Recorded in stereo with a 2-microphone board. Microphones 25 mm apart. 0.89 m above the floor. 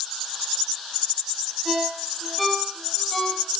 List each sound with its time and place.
1.6 s a ringtone: 5° right (ahead or behind), 7.5 m